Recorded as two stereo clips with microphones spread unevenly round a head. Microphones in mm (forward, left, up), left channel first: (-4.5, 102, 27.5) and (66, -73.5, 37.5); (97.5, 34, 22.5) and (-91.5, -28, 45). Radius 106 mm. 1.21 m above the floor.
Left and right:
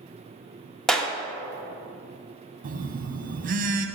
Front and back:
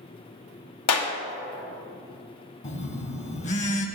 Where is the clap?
25° left, 1.1 m.